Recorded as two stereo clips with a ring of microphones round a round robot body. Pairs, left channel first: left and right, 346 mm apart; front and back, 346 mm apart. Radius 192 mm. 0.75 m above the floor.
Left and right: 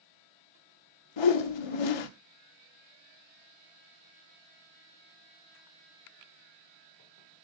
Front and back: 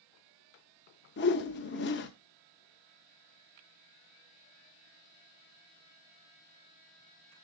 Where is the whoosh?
65° left, 0.7 m.